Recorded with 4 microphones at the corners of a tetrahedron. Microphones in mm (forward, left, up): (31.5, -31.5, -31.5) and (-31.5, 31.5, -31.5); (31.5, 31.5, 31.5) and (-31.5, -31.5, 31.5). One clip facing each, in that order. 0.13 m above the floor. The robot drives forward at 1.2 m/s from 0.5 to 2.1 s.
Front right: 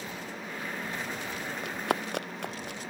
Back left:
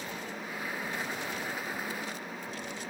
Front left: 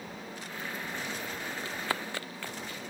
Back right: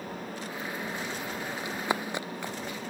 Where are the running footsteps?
60° right.